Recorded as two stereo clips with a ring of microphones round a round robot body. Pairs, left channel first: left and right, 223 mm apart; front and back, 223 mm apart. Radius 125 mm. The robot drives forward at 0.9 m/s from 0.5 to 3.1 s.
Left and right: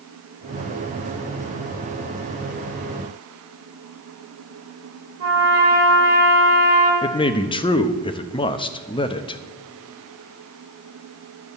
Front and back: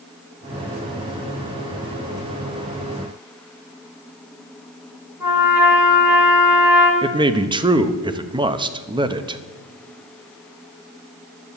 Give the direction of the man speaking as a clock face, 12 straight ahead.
8 o'clock.